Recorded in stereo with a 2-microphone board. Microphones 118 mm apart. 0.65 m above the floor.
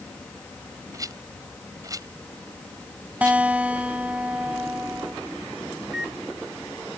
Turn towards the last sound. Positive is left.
turn(degrees=-5)  # may be behind; listen again after turning